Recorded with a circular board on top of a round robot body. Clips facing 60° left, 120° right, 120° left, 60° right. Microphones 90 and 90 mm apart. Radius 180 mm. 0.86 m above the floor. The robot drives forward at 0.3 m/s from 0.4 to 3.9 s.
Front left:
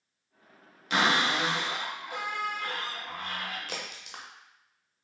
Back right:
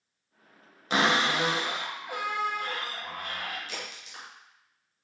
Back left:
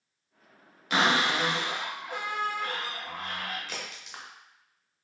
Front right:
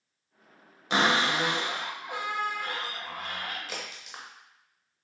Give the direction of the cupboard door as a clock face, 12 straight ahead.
3 o'clock.